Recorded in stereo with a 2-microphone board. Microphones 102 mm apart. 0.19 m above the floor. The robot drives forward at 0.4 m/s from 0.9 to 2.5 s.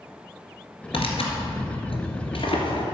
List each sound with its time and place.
0.9 s tearing paper: 65° left (ahead or behind), 2 m; by 2.9 s 60° left (ahead or behind), 2 m